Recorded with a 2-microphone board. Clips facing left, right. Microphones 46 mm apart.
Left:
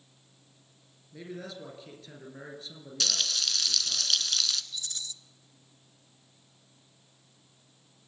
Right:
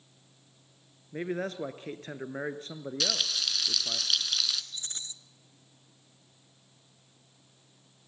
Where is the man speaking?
50° right (ahead or behind), 1.6 m.